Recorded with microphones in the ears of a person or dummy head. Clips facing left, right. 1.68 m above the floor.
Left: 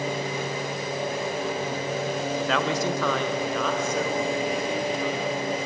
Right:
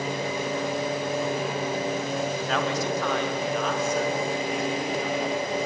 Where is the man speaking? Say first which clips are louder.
Left 2 dB; 65° left (ahead or behind), 1.2 m; by 5.6 s 75° left (ahead or behind), 4.5 m.